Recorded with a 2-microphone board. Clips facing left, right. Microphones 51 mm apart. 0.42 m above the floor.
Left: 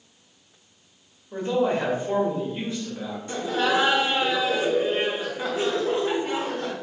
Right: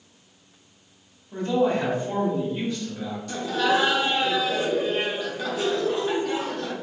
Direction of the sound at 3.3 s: 30° left (ahead or behind).